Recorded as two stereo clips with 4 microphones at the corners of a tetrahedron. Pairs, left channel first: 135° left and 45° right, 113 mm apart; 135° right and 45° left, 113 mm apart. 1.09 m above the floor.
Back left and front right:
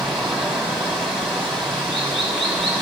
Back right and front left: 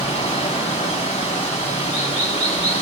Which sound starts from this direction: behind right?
Running water, at 0.0 s.